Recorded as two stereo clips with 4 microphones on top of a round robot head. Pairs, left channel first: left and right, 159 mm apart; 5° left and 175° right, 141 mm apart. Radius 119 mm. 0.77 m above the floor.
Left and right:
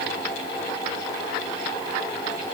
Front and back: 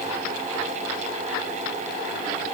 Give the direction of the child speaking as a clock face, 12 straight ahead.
No child speaking in this recording.